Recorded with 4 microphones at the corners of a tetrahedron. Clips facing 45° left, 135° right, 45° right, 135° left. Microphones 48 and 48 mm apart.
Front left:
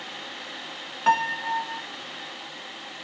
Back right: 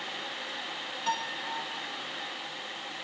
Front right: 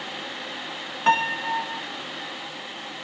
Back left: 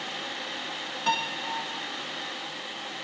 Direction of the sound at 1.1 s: 5° left.